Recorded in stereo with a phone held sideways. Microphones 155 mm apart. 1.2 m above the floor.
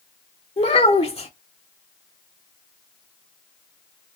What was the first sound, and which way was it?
A child speaking, 40° left (ahead or behind).